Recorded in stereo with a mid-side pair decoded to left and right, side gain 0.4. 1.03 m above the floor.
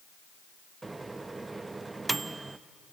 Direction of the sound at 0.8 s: 25° right.